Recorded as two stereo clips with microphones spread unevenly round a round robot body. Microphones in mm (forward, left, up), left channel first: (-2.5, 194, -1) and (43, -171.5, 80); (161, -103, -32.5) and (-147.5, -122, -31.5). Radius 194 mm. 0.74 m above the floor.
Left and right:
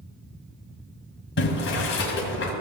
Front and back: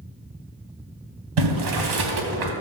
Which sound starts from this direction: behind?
Boiling, at 1.4 s.